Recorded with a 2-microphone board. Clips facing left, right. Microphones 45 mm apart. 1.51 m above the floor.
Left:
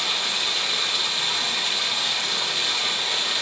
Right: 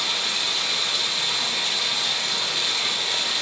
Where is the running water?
10° left (ahead or behind), 3 m.